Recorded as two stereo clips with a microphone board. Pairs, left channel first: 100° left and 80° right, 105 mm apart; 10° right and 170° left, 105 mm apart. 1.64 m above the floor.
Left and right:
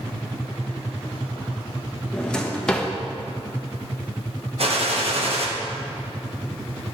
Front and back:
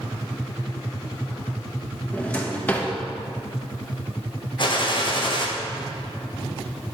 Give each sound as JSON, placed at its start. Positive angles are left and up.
{"t": 2.1, "sound": "a drawer", "azimuth_deg": 35, "distance_m": 0.9}
{"t": 4.6, "sound": "a gunshot", "azimuth_deg": -55, "distance_m": 1.1}